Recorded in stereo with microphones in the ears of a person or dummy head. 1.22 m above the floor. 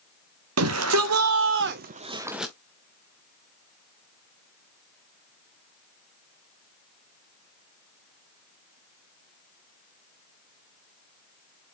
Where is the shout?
80° right, 1.1 m; by 2.5 s 5° left (ahead or behind), 0.6 m.